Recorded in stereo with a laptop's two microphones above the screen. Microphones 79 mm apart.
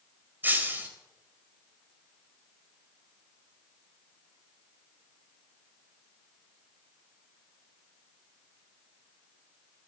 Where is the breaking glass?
25° right (ahead or behind), 2.5 m.